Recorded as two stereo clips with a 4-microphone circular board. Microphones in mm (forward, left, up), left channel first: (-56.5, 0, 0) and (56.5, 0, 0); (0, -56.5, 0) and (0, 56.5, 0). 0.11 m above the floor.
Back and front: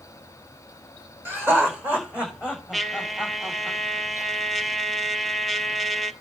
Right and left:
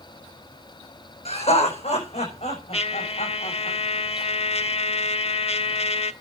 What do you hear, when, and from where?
1.2 s laughter: 70° right, 6 m; by 3.7 s 85° right, 7 m
2.7 s a trumpet: 90° right, 0.9 m